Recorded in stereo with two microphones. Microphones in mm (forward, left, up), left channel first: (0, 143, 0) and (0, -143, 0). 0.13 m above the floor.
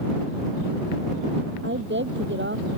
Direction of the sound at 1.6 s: 40° right (ahead or behind).